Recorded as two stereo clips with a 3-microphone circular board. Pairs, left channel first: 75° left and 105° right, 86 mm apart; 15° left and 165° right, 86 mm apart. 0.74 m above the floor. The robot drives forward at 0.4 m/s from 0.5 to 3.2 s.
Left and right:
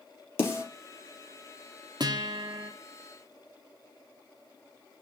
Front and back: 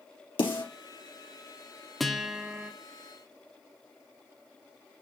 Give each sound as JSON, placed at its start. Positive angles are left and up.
{"t": 0.4, "sound": "a snare drum", "azimuth_deg": 15, "distance_m": 3.5}
{"t": 2.0, "sound": "a guitar", "azimuth_deg": -75, "distance_m": 1.1}